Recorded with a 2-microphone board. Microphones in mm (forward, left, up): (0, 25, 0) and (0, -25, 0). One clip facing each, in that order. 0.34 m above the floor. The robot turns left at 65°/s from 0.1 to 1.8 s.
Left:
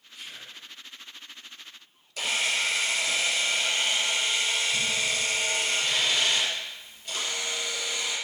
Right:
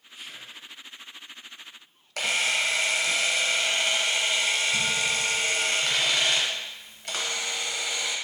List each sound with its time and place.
0.1 s whispering: 130° right, 1.3 m; by 0.6 s 165° right, 1.3 m
2.2 s a camera shutter: 70° right (ahead or behind), 0.5 m